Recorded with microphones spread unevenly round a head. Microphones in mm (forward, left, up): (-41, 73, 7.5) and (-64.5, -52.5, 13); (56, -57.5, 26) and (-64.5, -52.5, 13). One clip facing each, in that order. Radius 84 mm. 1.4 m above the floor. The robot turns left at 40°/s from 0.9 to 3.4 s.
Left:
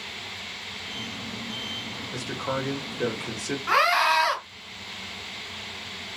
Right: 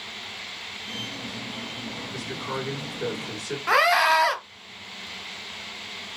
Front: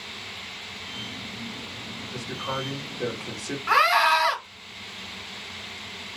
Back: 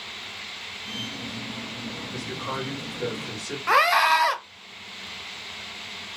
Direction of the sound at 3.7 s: 140° right.